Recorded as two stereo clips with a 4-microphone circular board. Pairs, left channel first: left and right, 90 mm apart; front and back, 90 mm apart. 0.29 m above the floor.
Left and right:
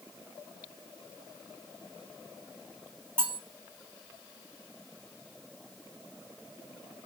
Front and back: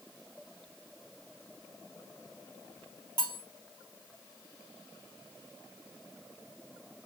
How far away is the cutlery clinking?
About 0.8 m.